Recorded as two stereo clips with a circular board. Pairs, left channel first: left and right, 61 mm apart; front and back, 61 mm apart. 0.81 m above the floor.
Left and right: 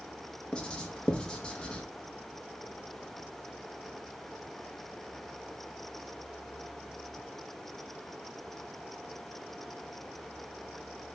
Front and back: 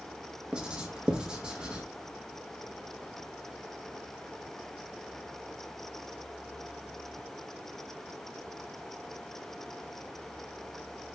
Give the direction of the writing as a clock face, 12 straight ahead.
8 o'clock.